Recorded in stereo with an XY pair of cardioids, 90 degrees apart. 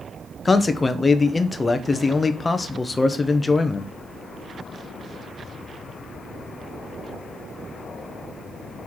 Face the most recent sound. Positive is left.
turn(degrees=25)